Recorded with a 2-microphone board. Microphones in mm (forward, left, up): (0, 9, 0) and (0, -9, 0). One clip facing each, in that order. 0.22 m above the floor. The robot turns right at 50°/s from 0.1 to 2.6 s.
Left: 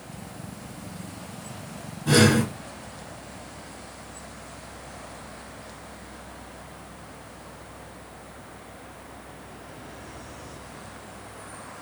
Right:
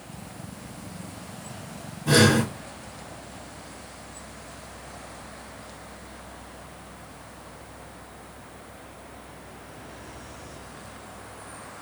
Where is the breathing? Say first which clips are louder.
Even; 10° left (ahead or behind), 3.5 m; by 2.5 s 10° right (ahead or behind), 3.5 m.